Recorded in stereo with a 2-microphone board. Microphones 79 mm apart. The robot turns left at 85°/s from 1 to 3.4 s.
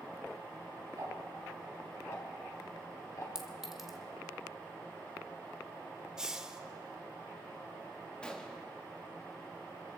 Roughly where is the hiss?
Centre.